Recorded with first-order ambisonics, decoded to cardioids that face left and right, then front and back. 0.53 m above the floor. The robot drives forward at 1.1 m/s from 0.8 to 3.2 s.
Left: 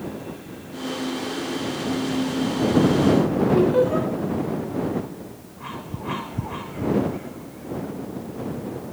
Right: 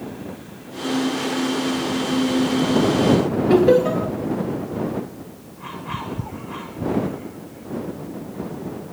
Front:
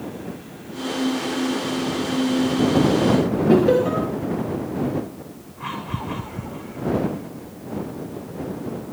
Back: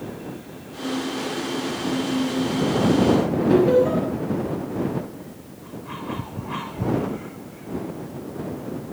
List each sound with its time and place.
3.5 s laughter: 90° right, 8 m